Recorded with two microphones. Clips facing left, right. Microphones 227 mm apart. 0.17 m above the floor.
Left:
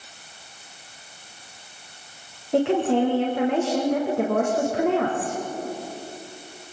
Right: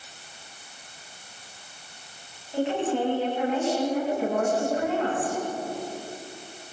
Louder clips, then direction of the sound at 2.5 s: Left 6 dB; 65° left (ahead or behind).